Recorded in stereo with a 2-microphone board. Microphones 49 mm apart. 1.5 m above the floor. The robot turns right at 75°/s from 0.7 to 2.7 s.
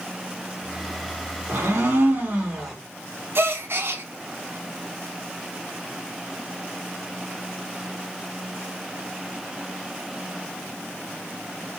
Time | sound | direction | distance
1.5 | a blender | 100° right | 1.2 m
3.4 | a gasp | 55° right (ahead or behind) | 0.5 m